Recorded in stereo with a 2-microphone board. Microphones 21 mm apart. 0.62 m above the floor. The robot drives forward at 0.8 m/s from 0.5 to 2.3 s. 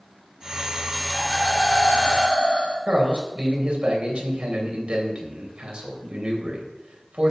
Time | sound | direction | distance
1.1 | laughter | 55° left (ahead or behind) | 5.5 m
2.9 | a man speaking | 50° right (ahead or behind) | 3.5 m